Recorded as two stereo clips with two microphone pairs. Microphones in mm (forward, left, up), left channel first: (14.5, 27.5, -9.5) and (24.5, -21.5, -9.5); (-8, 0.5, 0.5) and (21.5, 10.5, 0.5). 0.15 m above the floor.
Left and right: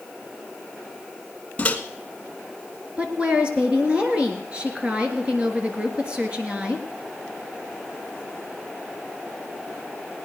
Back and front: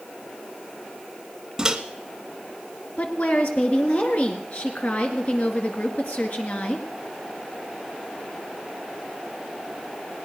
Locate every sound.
1.6 s a microwave: 70° left, 0.9 m
3.0 s a woman speaking: 140° right, 2 m